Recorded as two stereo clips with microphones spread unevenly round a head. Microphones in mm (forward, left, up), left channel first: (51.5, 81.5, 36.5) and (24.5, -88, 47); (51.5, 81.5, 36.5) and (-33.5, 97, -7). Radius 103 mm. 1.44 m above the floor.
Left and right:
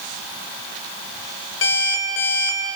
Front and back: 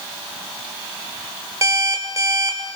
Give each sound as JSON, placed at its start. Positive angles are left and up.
{"t": 1.6, "sound": "an alarm clock", "azimuth_deg": 110, "distance_m": 3.5}